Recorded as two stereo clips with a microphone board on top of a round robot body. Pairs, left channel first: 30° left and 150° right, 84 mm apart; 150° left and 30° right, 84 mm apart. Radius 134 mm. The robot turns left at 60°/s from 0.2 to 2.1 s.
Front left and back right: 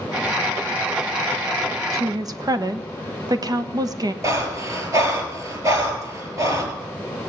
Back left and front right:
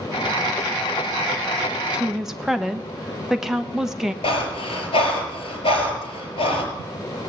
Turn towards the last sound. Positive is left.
turn(degrees=160)